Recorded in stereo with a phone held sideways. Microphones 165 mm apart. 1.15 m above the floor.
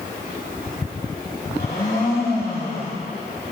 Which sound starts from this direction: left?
A blender, at 1.5 s.